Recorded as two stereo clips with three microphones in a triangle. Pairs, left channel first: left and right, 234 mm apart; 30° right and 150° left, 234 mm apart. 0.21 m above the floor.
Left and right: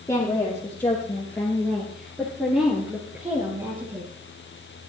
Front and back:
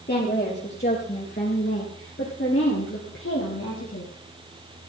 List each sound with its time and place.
0.1 s a woman speaking: 15° left, 4.5 m; by 4.1 s 20° right, 3.5 m